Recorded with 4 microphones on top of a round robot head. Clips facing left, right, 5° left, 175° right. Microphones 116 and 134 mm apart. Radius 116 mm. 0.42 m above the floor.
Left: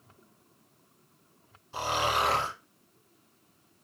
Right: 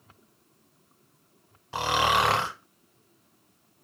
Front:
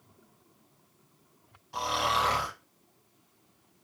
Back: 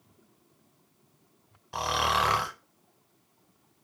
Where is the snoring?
125° right, 0.6 m.